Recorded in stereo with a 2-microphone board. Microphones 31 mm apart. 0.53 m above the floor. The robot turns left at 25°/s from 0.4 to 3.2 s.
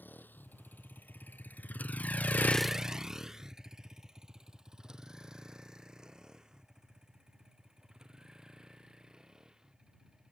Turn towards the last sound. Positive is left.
turn(degrees=-20)  # may be behind; listen again after turning